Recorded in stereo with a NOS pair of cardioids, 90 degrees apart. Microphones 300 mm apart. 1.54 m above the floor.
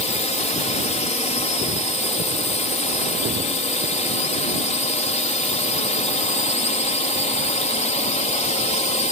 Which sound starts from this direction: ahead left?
A drone, at 0.0 s.